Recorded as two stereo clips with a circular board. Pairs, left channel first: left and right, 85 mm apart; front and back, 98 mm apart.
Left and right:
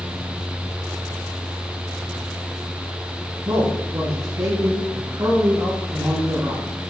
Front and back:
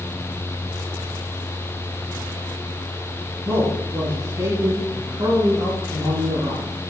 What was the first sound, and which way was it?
A man speaking, 110° right.